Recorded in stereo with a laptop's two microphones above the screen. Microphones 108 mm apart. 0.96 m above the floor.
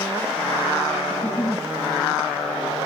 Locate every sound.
1.1 s a giggle: 20° left (ahead or behind), 0.8 m